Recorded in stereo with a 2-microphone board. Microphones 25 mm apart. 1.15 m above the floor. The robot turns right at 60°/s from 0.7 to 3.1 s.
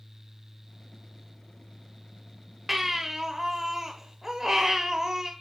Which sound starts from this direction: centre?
A baby crying, at 2.7 s.